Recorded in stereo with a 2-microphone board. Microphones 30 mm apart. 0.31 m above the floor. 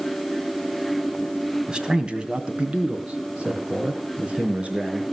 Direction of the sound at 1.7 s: 30° right (ahead or behind).